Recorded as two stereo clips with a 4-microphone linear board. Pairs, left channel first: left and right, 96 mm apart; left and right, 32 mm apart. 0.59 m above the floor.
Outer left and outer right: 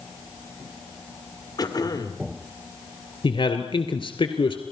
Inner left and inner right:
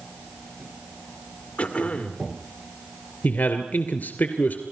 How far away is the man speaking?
About 2.0 m.